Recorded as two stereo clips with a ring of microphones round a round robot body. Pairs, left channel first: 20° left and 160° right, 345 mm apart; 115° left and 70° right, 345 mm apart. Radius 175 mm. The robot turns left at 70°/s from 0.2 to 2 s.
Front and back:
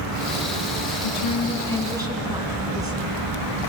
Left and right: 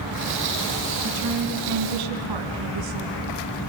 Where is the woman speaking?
10° right, 4 m; by 3.1 s 80° right, 4 m.